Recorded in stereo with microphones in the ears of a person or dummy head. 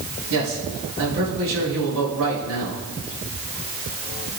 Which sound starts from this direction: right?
A man speaking, at 0.3 s.